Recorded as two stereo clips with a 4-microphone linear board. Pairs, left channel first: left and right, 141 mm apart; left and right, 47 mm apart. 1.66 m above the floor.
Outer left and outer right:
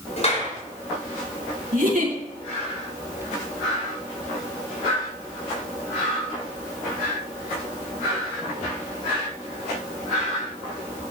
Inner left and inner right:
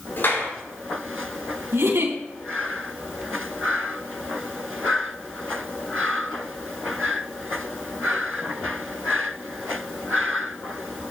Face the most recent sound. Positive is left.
turn(degrees=-80)